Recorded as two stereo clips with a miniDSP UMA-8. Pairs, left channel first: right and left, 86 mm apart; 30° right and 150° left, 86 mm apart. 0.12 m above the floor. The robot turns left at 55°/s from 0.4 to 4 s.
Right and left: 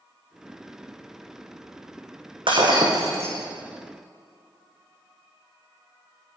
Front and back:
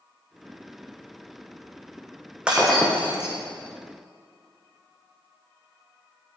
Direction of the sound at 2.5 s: 75° left.